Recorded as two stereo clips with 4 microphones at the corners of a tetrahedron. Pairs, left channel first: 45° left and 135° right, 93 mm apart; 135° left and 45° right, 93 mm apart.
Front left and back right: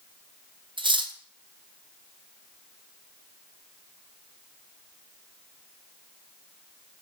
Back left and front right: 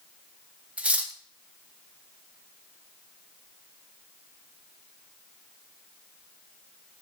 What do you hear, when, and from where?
0.8 s cutlery clinking: 120° right, 0.7 m